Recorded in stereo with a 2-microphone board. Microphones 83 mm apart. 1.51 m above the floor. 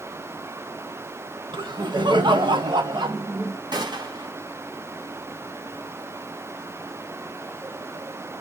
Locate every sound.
1.5 s laughter: 70° right (ahead or behind), 0.9 m; by 3.6 s 65° right (ahead or behind), 1.9 m
3.7 s a gunshot: 60° right (ahead or behind), 1.8 m